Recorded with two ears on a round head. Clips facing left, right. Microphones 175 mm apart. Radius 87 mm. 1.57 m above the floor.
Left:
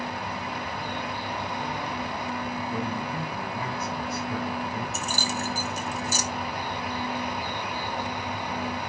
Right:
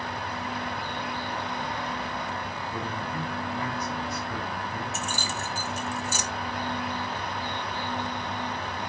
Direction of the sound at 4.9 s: 35° left (ahead or behind).